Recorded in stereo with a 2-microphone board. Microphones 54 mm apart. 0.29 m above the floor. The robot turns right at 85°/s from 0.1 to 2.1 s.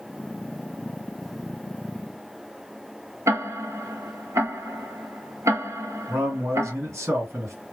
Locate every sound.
3.3 s ticking: 65° right (ahead or behind), 0.8 m
6.1 s a man speaking: 60° right (ahead or behind), 2.5 m